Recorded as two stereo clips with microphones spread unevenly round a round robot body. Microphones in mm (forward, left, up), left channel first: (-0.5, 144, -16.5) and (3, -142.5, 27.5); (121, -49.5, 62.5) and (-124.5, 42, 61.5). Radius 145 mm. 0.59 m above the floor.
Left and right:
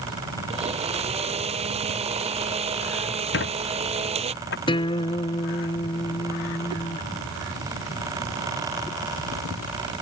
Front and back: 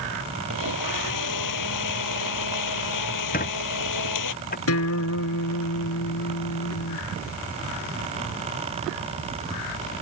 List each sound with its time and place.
0.5 s a blender: 20° right
3.3 s a squeak: 40° left
4.7 s a guitar: 15° left